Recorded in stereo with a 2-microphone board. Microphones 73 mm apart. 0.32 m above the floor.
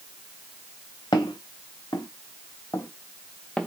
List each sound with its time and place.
1.1 s footsteps: 80° left, 1.3 m; by 3.7 s 10° left (ahead or behind), 0.7 m